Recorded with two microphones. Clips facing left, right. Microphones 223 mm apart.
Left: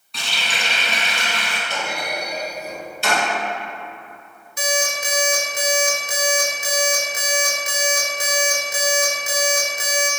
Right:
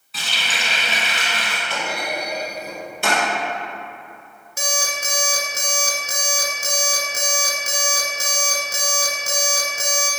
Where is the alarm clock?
45° right (ahead or behind), 0.7 m.